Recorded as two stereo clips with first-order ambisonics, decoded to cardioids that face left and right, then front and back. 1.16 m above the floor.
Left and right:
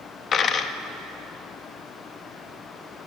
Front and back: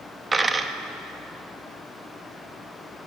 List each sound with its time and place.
0.3 s a dropped coin: 115° left, 0.5 m